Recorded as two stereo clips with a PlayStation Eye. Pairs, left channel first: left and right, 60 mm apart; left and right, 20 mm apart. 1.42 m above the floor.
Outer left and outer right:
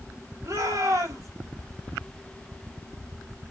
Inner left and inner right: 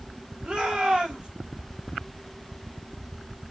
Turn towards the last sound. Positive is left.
turn(degrees=-65)  # may be behind; listen again after turning